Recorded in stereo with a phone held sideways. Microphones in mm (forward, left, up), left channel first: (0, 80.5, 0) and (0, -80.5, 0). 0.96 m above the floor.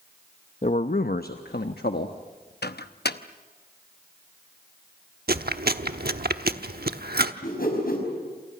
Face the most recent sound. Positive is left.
turn(degrees=70)  # may be behind; listen again after turning